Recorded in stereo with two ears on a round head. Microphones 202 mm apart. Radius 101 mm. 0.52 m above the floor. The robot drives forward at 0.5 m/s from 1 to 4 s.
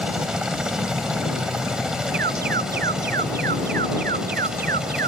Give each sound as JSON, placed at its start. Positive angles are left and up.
{"t": 0.0, "sound": "a helicopter", "side_deg": -5}
{"t": 2.1, "sound": "an alarm", "side_deg": -45}